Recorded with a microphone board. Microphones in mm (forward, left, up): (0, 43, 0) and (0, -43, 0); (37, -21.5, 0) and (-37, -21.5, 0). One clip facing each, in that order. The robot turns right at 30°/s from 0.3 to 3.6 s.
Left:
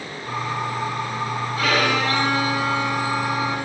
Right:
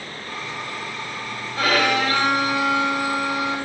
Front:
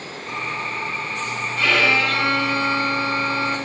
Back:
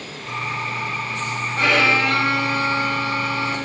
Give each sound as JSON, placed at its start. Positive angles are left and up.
{"t": 1.6, "sound": "a violin", "azimuth_deg": -130, "distance_m": 3.5}